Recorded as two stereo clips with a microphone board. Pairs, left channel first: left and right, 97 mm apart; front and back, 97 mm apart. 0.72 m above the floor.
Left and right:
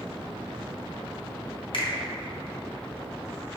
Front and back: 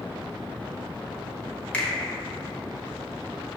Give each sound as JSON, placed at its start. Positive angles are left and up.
{"t": 1.7, "sound": "a finger snap", "azimuth_deg": 75, "distance_m": 0.9}